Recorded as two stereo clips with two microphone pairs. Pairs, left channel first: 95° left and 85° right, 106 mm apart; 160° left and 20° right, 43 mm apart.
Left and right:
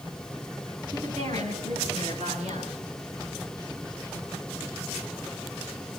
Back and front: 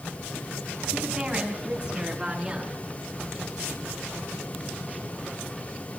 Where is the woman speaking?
95° right, 7 m; by 2.9 s 100° right, 10 m.